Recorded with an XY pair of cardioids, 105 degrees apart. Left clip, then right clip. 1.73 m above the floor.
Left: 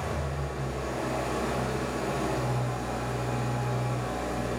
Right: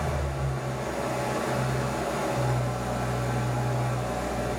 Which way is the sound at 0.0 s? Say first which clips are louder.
Right 2 dB; 65° right.